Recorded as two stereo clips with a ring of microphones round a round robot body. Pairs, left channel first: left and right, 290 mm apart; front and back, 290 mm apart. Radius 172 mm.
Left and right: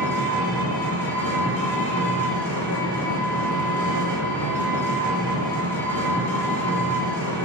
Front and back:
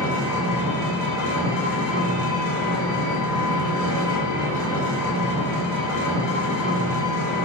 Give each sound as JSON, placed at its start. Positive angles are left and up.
{"t": 0.0, "sound": "an engine running", "azimuth_deg": 5, "distance_m": 1.3}